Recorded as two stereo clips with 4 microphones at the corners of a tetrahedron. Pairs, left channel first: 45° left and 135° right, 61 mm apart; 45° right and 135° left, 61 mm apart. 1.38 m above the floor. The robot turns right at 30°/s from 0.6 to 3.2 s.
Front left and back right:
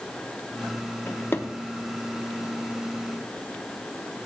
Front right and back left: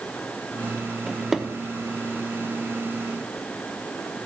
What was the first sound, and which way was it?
A drawer, 50° left.